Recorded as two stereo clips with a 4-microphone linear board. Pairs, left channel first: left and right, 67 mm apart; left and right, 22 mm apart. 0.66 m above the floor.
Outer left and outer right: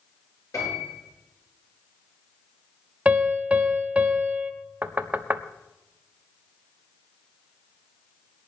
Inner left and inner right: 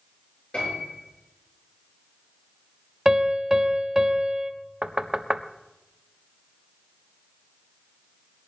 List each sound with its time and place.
0.5 s a piano: 55° left (ahead or behind), 8.5 m
3.0 s a piano: 20° right (ahead or behind), 1.3 m
4.8 s knocking: 25° right (ahead or behind), 0.8 m